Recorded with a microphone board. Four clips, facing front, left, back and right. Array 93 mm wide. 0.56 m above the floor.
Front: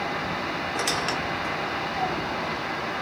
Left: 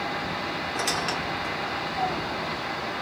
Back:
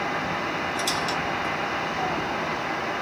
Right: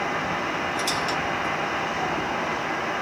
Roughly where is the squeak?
Ahead left.